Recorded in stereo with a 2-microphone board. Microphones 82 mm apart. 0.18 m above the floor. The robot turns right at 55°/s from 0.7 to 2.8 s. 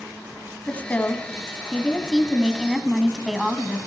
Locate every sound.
0.7 s a woman speaking: 20° left (ahead or behind), 1.0 m; by 3.8 s 5° right (ahead or behind), 1.0 m